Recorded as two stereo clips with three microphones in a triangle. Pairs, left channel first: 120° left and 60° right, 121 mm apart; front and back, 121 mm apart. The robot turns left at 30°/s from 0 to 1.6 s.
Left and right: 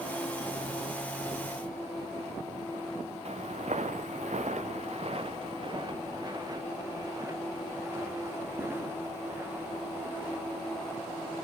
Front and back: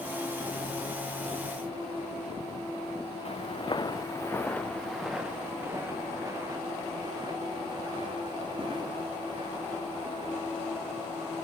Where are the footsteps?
35° right, 1.2 m; by 10.5 s 135° right, 5 m.